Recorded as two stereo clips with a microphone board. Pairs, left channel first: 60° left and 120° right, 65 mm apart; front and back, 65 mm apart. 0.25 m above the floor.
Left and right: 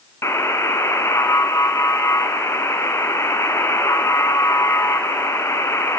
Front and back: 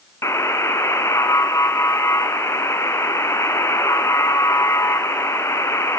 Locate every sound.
0.2 s a buzzer: 30° left, 1.4 m